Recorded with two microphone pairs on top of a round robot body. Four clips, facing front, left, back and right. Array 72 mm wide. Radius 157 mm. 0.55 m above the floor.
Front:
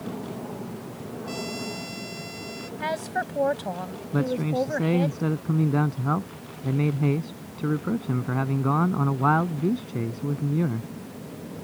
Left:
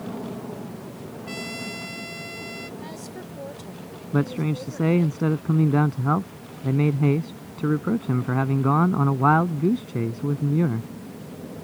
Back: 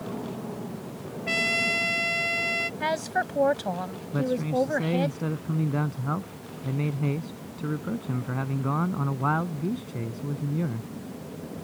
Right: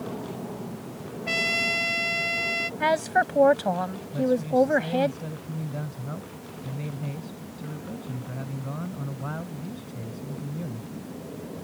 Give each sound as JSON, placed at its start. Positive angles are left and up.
{"t": 1.3, "sound": "a trumpet", "azimuth_deg": -140}
{"t": 2.8, "sound": "a woman speaking", "azimuth_deg": -95}
{"t": 4.1, "sound": "a man speaking", "azimuth_deg": 75}